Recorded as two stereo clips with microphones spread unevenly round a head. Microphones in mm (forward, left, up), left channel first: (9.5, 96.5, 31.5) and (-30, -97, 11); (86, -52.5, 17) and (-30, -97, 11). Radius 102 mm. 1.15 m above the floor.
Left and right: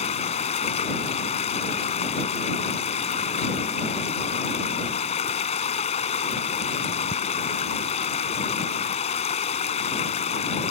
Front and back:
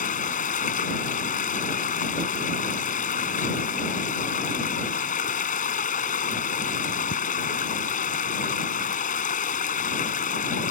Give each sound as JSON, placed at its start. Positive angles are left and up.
{"t": 0.0, "sound": "running water", "azimuth_deg": 20}